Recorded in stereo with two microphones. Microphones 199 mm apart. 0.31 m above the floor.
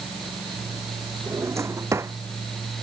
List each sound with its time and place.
1.3 s a drawer: 15° right (ahead or behind)